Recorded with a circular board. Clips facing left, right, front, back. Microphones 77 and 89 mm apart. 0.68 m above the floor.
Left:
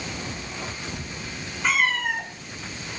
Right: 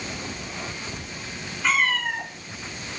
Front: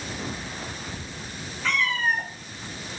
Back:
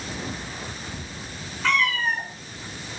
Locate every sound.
1.6 s a cat meowing: 170° left, 5 m